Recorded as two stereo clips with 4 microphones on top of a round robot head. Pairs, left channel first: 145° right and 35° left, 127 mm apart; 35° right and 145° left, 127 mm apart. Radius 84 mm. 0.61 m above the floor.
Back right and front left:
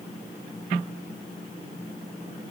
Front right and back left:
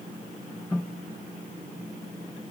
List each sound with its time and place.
Only background noise.